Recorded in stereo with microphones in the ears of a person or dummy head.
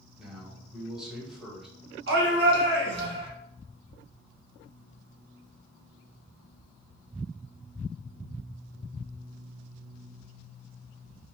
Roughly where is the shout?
Right.